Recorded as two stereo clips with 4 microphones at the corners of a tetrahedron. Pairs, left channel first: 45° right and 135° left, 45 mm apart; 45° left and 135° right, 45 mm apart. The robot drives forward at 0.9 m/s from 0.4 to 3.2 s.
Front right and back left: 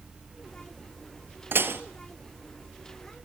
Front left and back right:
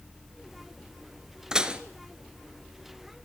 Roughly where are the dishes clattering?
Behind left.